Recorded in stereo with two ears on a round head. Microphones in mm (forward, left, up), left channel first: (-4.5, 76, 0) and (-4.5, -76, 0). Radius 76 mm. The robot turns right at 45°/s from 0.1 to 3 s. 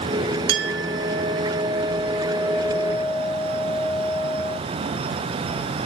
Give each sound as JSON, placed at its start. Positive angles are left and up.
{"t": 0.5, "sound": "a clink", "azimuth_deg": -100, "distance_m": 1.1}